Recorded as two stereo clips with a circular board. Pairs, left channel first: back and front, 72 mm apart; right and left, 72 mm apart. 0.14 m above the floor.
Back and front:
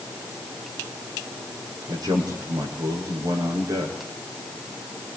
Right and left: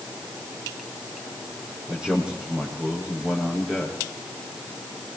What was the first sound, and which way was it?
A man speaking, 10° left.